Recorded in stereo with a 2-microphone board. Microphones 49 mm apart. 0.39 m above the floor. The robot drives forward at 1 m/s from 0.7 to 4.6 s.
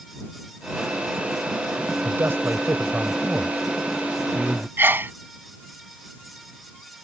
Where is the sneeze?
45° right (ahead or behind).